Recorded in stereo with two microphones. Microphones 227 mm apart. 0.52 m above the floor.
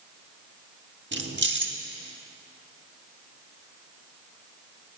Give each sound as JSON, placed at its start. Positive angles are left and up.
{"t": 1.1, "sound": "keys jangling", "side_deg": -55, "distance_m": 1.0}